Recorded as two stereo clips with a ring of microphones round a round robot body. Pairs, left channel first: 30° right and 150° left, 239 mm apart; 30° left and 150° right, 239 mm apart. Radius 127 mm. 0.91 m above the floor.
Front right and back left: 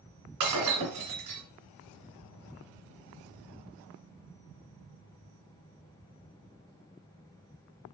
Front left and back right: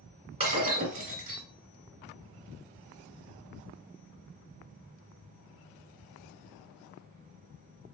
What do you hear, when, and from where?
0.4 s breaking glass: 145° left, 2.0 m